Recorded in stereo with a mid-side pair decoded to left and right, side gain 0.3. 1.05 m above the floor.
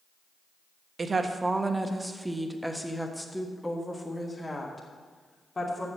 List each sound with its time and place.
1.0 s a woman speaking: 50° right, 1.2 m; by 5.9 s 35° left, 3 m